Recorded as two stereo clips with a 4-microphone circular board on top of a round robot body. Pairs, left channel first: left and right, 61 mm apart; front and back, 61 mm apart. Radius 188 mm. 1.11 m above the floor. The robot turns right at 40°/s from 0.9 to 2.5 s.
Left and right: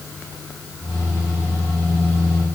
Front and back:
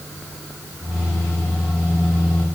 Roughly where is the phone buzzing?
I don't hear a phone buzzing.